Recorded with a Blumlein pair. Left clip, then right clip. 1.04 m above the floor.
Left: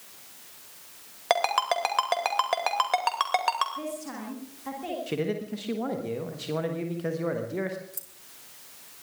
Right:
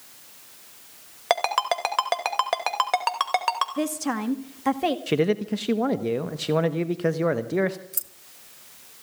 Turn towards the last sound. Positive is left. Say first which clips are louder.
# right 8 dB
turn(degrees=-65)